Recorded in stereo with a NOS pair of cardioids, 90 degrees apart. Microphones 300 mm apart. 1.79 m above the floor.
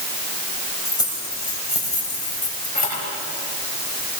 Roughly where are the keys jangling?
Ahead.